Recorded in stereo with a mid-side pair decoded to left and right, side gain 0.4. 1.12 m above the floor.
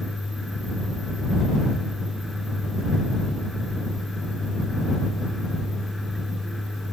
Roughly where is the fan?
Ahead.